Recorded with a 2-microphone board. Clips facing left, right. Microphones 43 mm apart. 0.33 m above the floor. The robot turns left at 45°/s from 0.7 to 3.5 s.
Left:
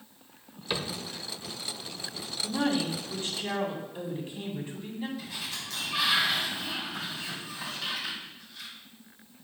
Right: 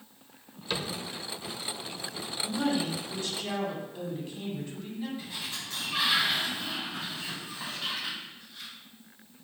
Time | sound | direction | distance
0.7 | a cupboard door | 15° left (ahead or behind) | 0.8 m
2.4 | a woman speaking | 75° left | 2 m
5.2 | a sliding door | 25° right (ahead or behind) | 3 m